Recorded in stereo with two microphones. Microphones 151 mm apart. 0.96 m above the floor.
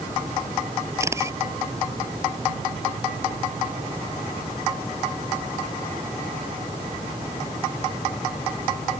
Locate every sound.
1.0 s a camera shutter: 20° right (ahead or behind)